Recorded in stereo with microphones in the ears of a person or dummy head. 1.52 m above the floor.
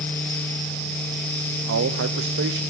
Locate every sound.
1.7 s a man speaking: 60° right (ahead or behind), 0.8 m